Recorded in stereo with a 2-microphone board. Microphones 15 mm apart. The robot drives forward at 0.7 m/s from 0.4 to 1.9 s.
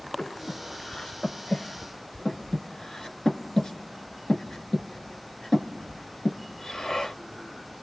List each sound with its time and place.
0.2 s breathing: 65° left (ahead or behind), 1.2 m; by 7.2 s 45° left (ahead or behind), 1.6 m